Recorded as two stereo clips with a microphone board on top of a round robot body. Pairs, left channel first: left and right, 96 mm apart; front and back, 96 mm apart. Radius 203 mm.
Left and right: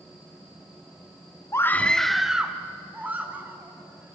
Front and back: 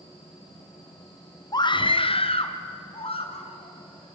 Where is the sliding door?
I don't hear a sliding door.